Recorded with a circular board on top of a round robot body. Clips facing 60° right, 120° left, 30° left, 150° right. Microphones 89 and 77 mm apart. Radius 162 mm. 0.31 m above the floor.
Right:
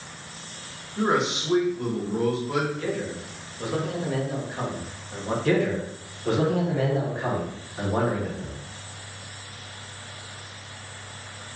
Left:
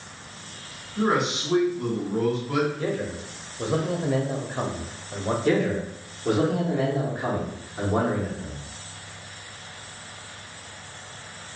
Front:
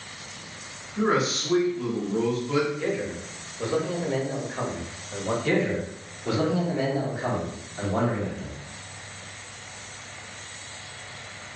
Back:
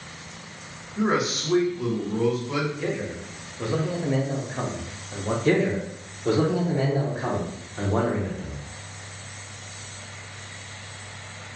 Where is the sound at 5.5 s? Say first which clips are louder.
Even, back 4 dB; 165° right, 1.3 m.